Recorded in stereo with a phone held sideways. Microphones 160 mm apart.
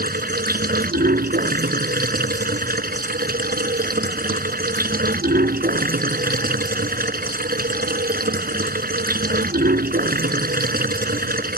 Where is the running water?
80° right.